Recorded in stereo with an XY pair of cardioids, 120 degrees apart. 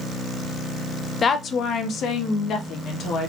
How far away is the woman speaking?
About 0.6 m.